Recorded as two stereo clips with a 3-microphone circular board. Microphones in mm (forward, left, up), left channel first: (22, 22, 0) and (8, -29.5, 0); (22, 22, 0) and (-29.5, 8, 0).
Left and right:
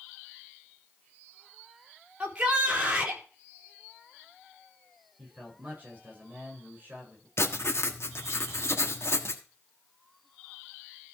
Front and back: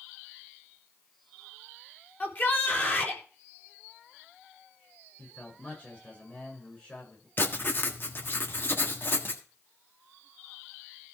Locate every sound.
2.2 s a shout: 40° right, 3.5 m
5.2 s a man speaking: 50° right, 7.5 m
7.4 s writing: 55° left, 1.5 m